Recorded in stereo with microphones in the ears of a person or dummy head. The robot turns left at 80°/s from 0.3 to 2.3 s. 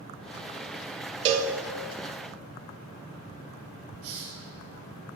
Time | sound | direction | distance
1.2 | a cowbell | 35° right (ahead or behind) | 0.6 m
4.0 | a hiss | 50° right (ahead or behind) | 1.3 m